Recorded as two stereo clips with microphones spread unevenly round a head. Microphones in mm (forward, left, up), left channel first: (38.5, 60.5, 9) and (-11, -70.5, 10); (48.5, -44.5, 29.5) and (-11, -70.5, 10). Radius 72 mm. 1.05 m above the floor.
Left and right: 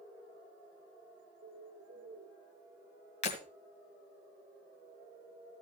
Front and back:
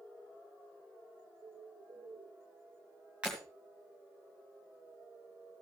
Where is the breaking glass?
115° left, 2 m.